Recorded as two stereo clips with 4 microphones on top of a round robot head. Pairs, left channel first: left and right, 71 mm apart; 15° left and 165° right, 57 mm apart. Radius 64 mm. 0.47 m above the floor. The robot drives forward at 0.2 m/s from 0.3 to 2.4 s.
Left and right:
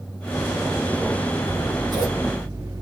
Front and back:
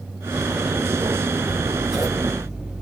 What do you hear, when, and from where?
1.4 s scissors: 85° right, 2.5 m; by 2.8 s 90° right, 2.5 m